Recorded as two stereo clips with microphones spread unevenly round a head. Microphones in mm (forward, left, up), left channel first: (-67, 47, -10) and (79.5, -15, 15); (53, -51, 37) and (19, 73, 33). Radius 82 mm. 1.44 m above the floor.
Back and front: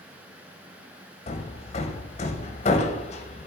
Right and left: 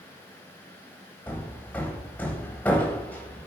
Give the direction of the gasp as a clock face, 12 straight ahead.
I don't hear a gasp.